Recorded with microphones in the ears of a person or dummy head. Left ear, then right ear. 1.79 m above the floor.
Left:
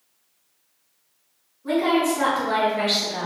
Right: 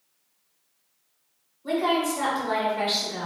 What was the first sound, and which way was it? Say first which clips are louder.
A woman speaking: left 3 dB; 15° right (ahead or behind).